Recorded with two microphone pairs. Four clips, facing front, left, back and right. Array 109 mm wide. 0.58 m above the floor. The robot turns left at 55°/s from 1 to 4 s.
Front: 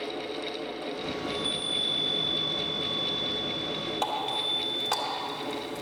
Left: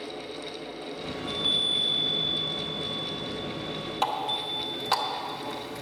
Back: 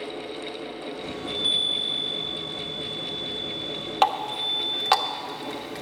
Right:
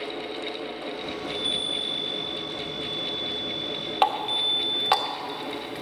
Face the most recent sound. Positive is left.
turn(degrees=-150)